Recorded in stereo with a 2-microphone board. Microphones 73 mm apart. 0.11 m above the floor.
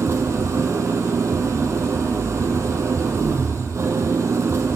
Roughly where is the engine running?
Right.